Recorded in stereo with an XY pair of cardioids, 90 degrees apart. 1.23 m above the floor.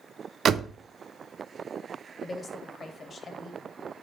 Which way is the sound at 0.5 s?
65° right.